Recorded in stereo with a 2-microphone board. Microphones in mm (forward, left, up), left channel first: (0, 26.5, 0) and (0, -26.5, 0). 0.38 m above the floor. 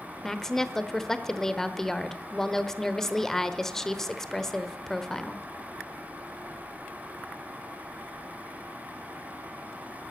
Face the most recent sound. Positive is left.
turn(degrees=10)  # may be behind; listen again after turning